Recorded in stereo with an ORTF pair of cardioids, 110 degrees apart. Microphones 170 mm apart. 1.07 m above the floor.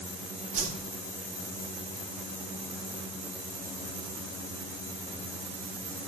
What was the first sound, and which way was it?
A whoosh, 45° right.